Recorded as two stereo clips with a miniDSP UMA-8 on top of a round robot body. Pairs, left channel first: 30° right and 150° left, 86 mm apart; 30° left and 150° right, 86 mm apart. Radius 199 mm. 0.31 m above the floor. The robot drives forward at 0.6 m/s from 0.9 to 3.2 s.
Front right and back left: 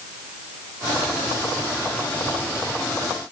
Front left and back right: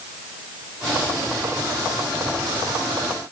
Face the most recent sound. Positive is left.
No sound to turn to.